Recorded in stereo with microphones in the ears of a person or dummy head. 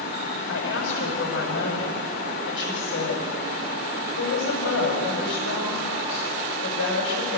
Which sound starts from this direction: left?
A woman speaking, at 0.5 s.